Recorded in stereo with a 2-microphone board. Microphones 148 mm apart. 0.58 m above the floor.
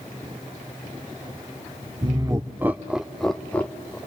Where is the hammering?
I don't hear hammering.